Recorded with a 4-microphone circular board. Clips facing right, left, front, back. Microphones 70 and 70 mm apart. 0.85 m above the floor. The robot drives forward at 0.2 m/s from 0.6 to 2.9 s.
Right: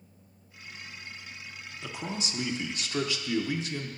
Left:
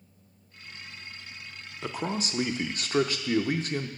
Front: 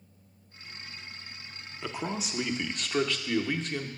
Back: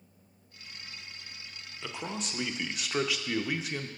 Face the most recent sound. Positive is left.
turn(degrees=100)